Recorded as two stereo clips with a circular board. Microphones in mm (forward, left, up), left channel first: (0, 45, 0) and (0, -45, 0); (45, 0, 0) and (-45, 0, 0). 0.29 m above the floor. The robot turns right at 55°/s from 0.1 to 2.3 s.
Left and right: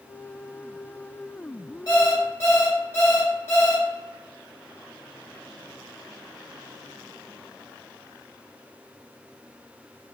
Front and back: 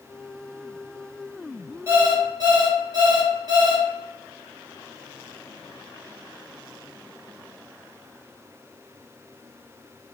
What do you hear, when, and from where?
1.9 s an alarm clock: 125° left, 1.9 m; by 3.8 s 150° left, 1.9 m